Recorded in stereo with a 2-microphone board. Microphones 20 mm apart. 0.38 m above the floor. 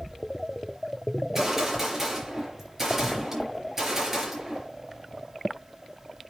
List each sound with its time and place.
1.2 s a gunshot: 25° right (ahead or behind), 4 m